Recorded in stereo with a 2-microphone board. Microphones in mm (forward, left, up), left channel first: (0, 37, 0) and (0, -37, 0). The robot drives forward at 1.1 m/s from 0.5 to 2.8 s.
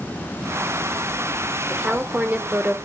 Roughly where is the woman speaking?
Centre.